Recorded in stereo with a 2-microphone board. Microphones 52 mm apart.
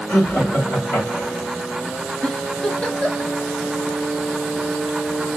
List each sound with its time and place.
0.1 s laughter: 40° left (ahead or behind), 1.6 m; by 1.5 s 60° left (ahead or behind), 2.5 m
2.2 s a giggle: 25° left (ahead or behind), 0.7 m